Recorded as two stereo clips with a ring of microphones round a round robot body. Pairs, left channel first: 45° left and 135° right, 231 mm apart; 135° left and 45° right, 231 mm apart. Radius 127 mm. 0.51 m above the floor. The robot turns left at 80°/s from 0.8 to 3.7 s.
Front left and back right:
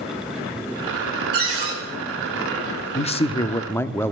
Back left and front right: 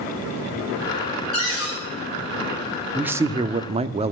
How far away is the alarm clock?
I don't hear an alarm clock.